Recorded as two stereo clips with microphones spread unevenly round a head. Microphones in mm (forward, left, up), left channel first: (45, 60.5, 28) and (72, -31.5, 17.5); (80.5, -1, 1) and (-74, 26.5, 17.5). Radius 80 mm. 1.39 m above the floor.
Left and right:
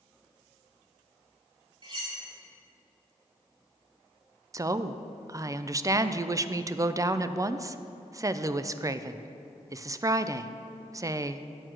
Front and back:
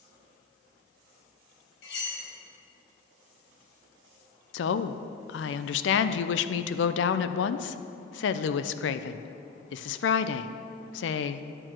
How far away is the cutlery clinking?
About 3.5 m.